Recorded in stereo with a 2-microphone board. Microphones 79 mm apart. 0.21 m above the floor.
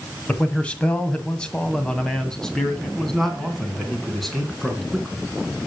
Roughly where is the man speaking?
Centre.